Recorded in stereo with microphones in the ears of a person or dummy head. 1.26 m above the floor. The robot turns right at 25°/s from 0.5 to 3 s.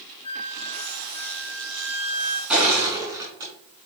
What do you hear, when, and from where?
0.2 s a flute: 145° left, 1.4 m; by 2.4 s 170° right, 1.4 m
2.5 s crushing: centre (ahead or behind), 3.5 m; by 3.9 s 15° right (ahead or behind), 3.5 m